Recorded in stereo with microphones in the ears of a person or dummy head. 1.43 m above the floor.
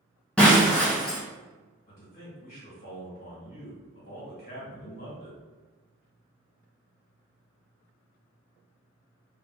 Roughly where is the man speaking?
Left.